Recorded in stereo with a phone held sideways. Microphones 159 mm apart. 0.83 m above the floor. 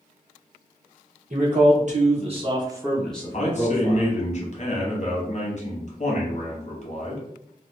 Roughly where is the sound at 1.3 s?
Right.